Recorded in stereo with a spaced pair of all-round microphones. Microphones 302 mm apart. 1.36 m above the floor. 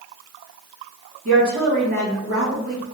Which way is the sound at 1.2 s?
40° right (ahead or behind).